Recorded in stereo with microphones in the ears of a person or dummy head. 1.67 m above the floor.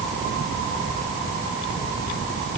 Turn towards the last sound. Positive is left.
No sound to turn to.